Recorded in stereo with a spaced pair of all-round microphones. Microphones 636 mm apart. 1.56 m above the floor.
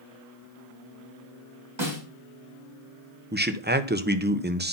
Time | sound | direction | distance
1.8 | a snare drum | 45° right (ahead or behind) | 4 m
3.3 | a man speaking | 15° right (ahead or behind) | 0.8 m